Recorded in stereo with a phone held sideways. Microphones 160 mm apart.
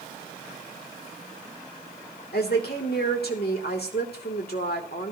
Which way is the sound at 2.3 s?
80° left.